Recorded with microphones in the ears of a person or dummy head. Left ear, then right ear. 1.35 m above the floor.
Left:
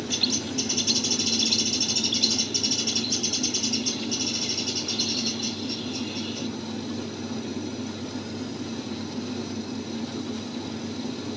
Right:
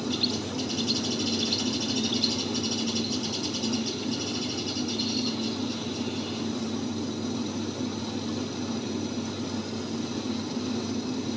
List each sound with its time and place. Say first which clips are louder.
0.1 s a bird: left 5 dB; 25° left (ahead or behind)